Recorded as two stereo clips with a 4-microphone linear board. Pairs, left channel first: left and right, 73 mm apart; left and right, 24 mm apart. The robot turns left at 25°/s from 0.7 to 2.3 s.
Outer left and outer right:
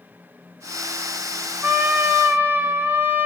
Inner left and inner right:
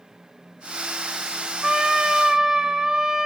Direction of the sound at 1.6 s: 30° right (ahead or behind).